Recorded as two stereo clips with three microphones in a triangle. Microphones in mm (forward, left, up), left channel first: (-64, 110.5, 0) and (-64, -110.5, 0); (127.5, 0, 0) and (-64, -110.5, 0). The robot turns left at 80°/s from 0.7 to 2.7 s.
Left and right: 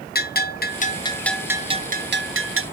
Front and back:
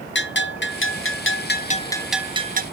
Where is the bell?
55° left, 0.5 m; by 2.6 s 100° right, 0.5 m.